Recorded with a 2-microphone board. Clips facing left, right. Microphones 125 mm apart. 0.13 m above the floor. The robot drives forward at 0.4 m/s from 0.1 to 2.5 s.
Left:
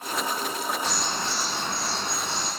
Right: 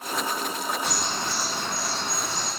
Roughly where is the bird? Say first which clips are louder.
Even; centre.